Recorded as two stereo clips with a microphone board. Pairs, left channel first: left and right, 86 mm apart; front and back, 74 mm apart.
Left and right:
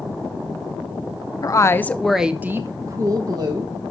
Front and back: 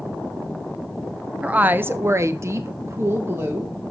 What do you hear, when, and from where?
1.4 s a woman speaking: 110° left, 0.7 m; by 3.7 s 120° right, 1.4 m